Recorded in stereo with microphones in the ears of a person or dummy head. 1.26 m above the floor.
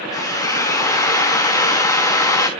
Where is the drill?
15° left (ahead or behind), 1.1 m.